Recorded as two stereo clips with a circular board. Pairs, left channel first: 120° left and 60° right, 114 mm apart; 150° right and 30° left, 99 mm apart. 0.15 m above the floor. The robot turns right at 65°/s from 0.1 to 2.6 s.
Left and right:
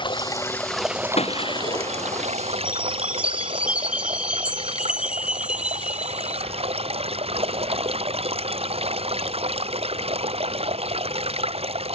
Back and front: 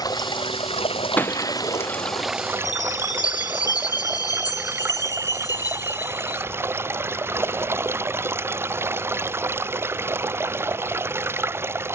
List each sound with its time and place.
0.0 s running water: 165° left; by 11.9 s 35° right
1.2 s breaking glass: 140° left; by 2.3 s 145° right
2.6 s a chime: 135° right